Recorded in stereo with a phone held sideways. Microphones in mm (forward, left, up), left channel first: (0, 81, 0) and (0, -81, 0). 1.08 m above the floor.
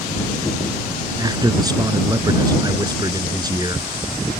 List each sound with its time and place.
1.2 s a man speaking: 25° right (ahead or behind)